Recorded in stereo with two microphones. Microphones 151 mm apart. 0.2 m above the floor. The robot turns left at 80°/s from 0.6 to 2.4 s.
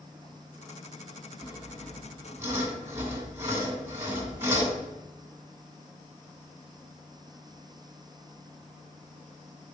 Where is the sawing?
55° left, 1.9 m; by 4.8 s 25° right, 1.9 m.